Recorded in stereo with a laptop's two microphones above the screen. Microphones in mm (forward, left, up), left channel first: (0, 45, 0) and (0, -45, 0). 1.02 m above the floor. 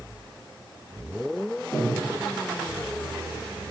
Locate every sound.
1.7 s breathing: 25° left (ahead or behind), 0.6 m